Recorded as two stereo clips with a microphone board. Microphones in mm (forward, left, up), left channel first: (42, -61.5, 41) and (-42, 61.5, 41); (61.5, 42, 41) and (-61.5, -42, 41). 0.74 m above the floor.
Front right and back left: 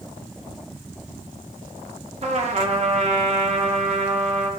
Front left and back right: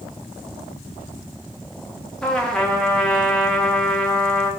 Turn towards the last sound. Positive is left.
turn(degrees=120)